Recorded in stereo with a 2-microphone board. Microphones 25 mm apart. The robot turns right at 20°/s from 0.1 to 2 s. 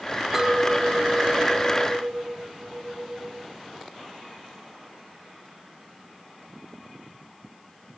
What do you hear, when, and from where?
0.3 s a clink: 165° right, 0.6 m; by 3.5 s 135° right, 0.6 m